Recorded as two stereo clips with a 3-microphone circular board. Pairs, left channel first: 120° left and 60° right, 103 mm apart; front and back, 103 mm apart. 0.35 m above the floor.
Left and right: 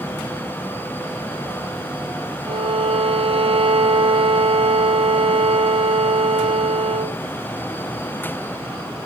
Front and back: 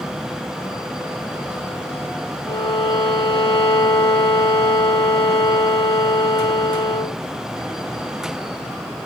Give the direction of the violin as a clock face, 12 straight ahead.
1 o'clock.